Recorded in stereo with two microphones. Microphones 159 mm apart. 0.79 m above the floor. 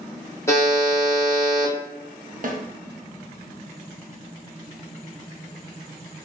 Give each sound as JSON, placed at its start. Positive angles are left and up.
{"t": 0.5, "sound": "a buzzer", "side_deg": 15, "distance_m": 1.0}
{"t": 2.4, "sound": "a snare drum", "side_deg": -60, "distance_m": 0.6}